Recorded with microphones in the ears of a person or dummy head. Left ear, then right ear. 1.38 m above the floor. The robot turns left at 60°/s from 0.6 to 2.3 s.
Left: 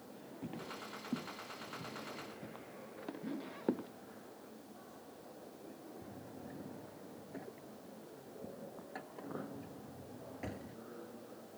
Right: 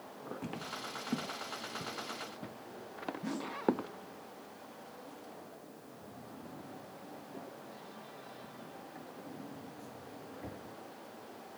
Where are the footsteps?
40° right (ahead or behind).